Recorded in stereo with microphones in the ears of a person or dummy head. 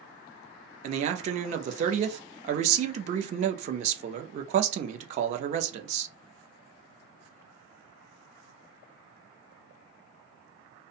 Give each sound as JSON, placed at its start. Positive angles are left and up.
{"t": 0.8, "sound": "a man speaking", "side_deg": -35, "distance_m": 0.5}